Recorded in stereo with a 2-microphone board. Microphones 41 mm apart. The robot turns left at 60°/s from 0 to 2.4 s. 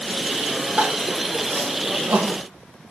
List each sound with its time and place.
0.8 s crying: 30° right (ahead or behind), 1.9 m; by 2.4 s 55° right (ahead or behind), 1.9 m